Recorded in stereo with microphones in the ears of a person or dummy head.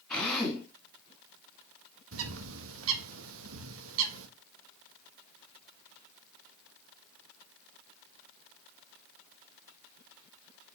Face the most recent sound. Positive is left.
turn(degrees=-80)